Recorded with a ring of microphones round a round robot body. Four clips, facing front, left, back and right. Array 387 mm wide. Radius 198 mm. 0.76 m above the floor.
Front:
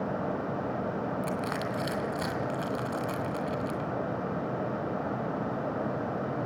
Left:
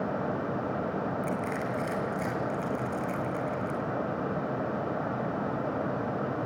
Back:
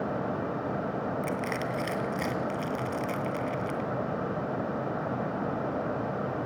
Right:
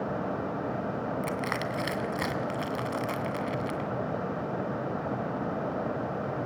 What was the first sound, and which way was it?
Crushing, 85° right.